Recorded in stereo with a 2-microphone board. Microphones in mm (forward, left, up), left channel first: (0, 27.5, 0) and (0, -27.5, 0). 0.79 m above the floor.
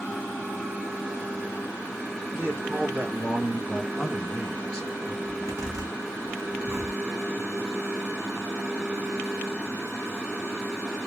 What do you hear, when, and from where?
2.3 s a man speaking: 25° right (ahead or behind), 1.3 m; by 5.2 s 15° left (ahead or behind), 1.0 m
5.2 s a zipper: 75° right (ahead or behind), 1.6 m